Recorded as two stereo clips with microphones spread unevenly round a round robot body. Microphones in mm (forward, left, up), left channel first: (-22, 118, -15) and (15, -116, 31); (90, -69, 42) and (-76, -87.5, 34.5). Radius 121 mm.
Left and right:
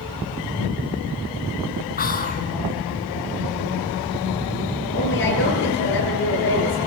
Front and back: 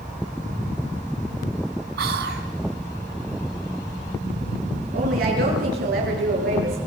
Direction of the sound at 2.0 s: 150° left.